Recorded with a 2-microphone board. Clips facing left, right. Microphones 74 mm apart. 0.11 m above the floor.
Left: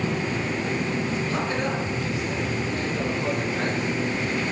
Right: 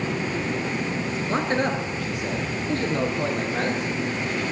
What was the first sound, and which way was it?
A man speaking, 30° right (ahead or behind).